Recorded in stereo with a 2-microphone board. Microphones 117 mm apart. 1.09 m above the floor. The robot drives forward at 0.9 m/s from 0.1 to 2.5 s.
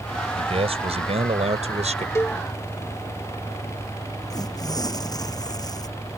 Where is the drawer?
I don't hear a drawer.